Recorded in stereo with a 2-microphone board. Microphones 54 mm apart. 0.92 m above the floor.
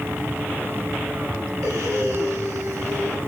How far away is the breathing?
About 4 m.